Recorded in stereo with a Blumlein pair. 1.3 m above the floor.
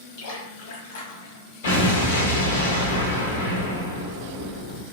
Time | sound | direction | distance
0.2 | a splash | 55° left | 1.3 m
1.6 | an explosion | 60° left | 1.0 m